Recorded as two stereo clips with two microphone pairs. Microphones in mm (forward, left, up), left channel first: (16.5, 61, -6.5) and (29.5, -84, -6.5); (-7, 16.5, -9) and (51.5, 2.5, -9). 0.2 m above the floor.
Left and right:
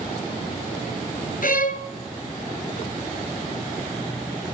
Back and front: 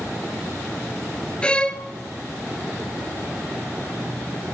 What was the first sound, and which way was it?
A violin, 95° left.